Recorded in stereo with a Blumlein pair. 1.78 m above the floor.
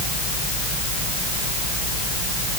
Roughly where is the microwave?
No microwave in this recording.